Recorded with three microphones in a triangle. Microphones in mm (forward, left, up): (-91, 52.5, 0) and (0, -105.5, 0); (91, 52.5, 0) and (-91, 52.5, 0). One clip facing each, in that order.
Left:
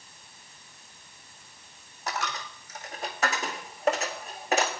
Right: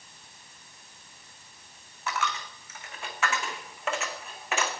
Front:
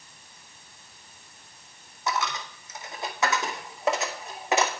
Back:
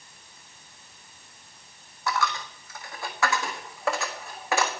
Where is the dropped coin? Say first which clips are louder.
Right 1 dB, back 1 dB; 70° left, 1.0 m.